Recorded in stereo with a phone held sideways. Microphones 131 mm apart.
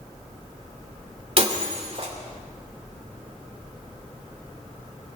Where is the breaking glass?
45° right (ahead or behind), 2.5 m.